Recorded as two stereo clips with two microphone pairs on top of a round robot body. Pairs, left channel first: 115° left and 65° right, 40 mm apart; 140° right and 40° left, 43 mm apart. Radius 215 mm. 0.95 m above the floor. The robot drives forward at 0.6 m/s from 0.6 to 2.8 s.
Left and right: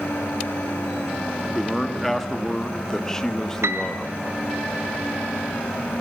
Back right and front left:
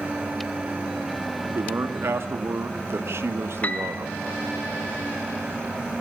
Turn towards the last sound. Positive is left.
turn(degrees=-85)